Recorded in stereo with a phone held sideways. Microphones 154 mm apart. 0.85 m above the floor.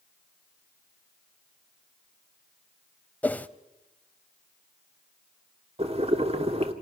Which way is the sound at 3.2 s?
10° left (ahead or behind).